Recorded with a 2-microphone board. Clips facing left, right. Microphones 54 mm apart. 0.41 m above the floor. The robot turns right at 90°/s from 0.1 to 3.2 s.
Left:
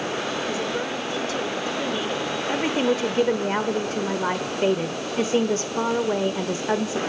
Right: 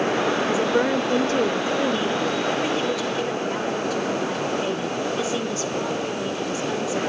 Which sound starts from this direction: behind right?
A woman speaking, at 0.5 s.